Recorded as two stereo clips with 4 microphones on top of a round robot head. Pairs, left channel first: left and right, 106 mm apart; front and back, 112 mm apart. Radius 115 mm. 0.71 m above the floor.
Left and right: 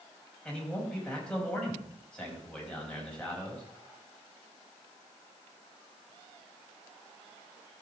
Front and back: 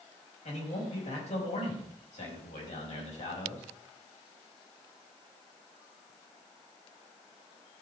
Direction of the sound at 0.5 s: 10° left.